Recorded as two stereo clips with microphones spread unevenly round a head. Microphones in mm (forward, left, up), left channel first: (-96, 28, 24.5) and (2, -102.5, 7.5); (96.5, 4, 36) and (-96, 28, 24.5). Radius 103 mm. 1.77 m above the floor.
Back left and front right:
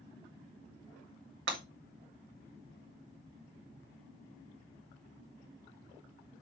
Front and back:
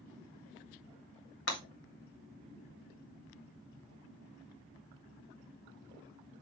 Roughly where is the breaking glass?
Ahead right.